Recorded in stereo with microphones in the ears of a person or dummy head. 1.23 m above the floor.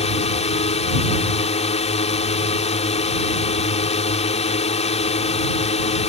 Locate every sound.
0.0 s a drone: 35° left (ahead or behind)